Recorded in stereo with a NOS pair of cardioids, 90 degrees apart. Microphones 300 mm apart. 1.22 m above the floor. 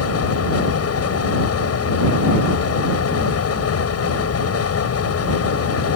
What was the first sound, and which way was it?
A fan, 55° left.